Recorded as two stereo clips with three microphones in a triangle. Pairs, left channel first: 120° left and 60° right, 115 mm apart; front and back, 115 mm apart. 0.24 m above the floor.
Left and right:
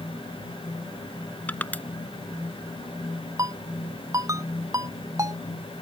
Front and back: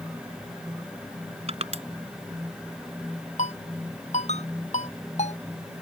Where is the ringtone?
5° left.